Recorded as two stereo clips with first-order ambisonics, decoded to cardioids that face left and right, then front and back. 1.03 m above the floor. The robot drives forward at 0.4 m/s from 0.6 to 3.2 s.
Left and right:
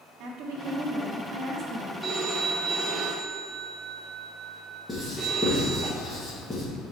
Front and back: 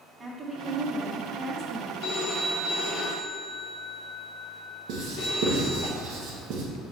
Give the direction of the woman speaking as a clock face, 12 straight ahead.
4 o'clock.